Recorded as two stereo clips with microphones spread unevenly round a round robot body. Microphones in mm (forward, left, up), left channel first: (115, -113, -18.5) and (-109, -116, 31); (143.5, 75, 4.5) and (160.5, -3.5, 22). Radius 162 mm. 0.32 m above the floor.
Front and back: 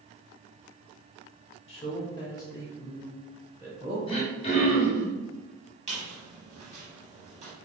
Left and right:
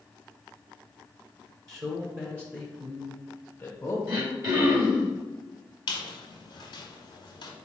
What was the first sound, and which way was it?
A man speaking, 25° right.